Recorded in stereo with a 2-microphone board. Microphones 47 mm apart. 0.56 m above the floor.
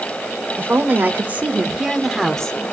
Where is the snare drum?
I don't hear a snare drum.